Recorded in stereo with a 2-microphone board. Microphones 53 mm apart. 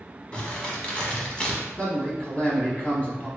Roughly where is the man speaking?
Left.